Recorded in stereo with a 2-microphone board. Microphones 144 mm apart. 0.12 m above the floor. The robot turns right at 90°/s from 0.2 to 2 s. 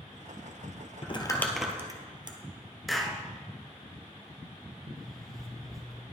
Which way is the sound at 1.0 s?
45° left (ahead or behind).